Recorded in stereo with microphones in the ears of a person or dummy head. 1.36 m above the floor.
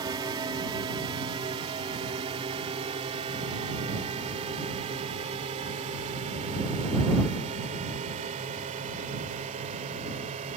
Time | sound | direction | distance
0.0 | a drone | 25° right (ahead or behind) | ?